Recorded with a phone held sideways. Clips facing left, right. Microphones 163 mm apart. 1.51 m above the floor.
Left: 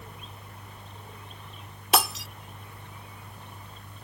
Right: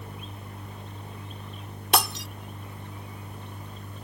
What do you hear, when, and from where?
0.0 s a machine running: 40° right (ahead or behind)
1.9 s breaking glass: centre (ahead or behind)